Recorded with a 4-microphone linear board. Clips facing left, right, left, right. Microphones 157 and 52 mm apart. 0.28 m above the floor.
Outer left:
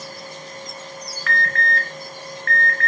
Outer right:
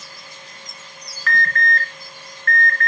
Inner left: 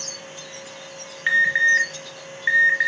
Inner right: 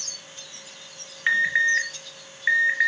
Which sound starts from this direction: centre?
An alarm, at 1.3 s.